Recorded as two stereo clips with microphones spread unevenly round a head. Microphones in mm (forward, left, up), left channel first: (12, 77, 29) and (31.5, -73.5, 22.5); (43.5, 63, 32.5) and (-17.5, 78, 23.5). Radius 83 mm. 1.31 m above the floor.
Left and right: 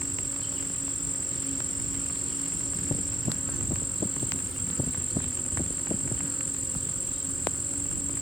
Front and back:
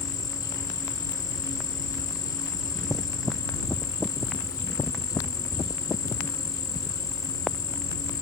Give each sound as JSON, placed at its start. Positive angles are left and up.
{"t": 0.0, "sound": "an insect", "azimuth_deg": 5}